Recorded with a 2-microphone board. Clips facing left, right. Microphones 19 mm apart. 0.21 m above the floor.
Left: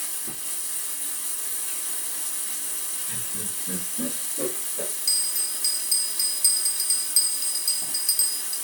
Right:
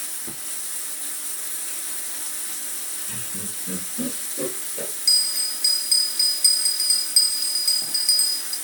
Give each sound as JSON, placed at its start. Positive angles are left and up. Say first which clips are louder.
{"t": 0.0, "sound": "running water", "louder": "right 1 dB", "side_deg": -30, "distance_m": 1.3}
{"t": 3.1, "sound": "laughter", "louder": "right 1 dB", "side_deg": -55, "distance_m": 3.5}
{"t": 5.1, "sound": "a bell", "louder": "right 8 dB", "side_deg": -30, "distance_m": 0.7}